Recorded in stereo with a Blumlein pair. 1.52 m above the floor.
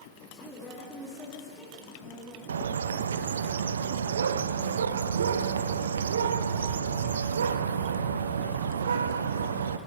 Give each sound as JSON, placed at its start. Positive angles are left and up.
{"t": 0.1, "sound": "a woman speaking", "azimuth_deg": 0, "distance_m": 3.5}
{"t": 2.5, "sound": "a bird", "azimuth_deg": -65, "distance_m": 0.6}